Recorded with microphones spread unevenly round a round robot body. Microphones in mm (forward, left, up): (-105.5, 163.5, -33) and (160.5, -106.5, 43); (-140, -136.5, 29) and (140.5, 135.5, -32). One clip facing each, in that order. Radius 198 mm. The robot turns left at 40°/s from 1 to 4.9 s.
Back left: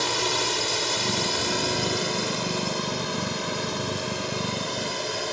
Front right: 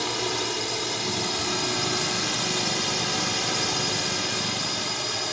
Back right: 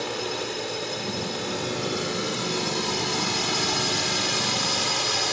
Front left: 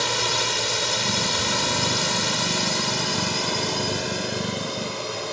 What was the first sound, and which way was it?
A drone, 50° left.